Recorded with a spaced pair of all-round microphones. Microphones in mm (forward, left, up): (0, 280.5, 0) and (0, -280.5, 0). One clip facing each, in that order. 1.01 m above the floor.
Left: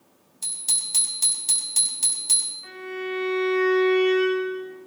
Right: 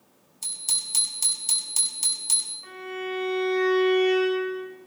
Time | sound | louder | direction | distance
0.4 | a bicycle bell | left 1 dB | 75° left (ahead or behind) | 4 m
2.6 | a violin | left 2 dB | 60° right (ahead or behind) | 5 m